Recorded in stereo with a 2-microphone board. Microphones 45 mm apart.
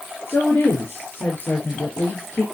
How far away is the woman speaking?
About 4.5 m.